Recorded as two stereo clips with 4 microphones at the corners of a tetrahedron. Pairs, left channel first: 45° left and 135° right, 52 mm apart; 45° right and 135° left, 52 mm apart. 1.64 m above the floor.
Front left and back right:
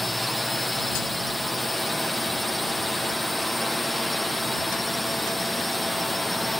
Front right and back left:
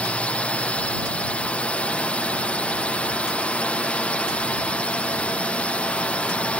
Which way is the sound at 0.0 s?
45° right.